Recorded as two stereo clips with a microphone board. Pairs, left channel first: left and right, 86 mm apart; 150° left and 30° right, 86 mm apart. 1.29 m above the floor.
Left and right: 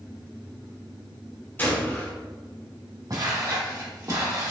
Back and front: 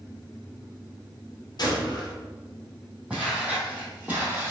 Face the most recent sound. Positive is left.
turn(degrees=-75)